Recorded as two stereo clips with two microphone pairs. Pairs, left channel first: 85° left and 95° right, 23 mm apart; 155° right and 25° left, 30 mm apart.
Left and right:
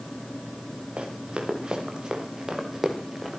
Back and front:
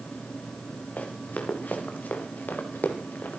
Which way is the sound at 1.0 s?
135° right.